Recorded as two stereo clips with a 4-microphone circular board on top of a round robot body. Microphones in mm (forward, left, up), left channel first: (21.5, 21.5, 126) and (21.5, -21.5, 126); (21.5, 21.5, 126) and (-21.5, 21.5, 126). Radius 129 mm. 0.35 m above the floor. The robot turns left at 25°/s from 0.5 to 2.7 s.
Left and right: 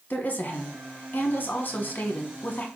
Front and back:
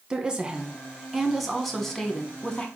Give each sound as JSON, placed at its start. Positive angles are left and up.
{"t": 0.1, "sound": "a woman speaking", "azimuth_deg": 110, "distance_m": 1.1}